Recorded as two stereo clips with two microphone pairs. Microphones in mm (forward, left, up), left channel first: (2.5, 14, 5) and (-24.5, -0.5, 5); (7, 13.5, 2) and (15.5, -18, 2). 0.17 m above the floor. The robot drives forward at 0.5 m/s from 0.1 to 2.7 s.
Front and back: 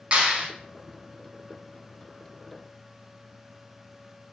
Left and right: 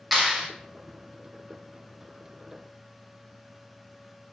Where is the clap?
150° right, 1.7 m; by 0.5 s 155° right, 1.8 m.